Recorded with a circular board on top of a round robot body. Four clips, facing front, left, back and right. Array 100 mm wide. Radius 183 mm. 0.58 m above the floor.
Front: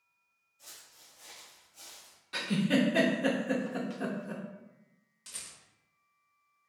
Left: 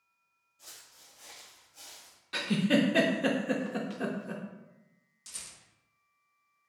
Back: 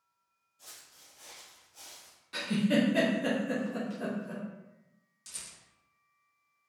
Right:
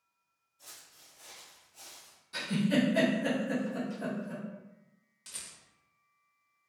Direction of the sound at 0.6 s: 140° left.